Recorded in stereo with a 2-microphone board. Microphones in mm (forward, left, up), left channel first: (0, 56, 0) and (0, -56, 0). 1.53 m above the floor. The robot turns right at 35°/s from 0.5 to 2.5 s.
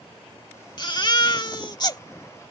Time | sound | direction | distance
0.8 | a baby crying | 75° left | ?